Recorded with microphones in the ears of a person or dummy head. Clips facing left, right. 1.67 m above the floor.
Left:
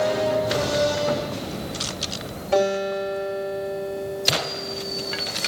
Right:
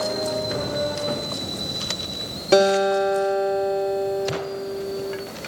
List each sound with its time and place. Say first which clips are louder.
2.5 s a guitar: right 5 dB; 80° right, 10 m